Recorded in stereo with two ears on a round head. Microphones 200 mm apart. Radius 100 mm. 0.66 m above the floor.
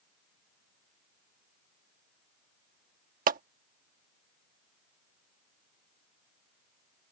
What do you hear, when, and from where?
3.3 s a clap: 40° right (ahead or behind)